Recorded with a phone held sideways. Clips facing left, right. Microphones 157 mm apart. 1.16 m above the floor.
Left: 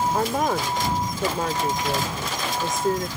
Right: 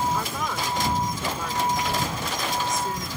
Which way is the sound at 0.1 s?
55° left (ahead or behind).